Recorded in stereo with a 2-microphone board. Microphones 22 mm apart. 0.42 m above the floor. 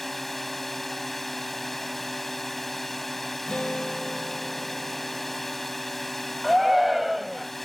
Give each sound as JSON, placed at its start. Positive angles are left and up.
{"t": 0.0, "sound": "a drone", "side_deg": 10}
{"t": 3.5, "sound": "a guitar", "side_deg": 45}
{"t": 6.4, "sound": "a shout", "side_deg": -10}